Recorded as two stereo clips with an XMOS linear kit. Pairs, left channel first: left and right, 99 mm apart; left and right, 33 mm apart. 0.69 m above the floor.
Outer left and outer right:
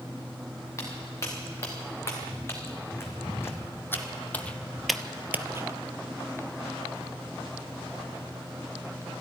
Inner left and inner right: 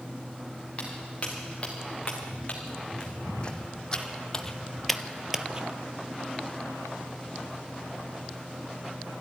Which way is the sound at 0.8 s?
30° left (ahead or behind).